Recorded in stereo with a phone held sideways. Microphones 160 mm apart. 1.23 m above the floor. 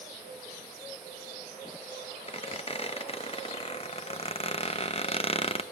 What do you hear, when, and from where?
2.3 s a squeak: 35° left (ahead or behind), 0.8 m